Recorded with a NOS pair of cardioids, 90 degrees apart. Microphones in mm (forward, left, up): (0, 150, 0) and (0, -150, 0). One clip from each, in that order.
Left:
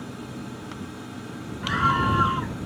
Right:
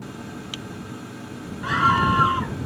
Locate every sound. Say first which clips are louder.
1.6 s a scream: right 3 dB; 20° right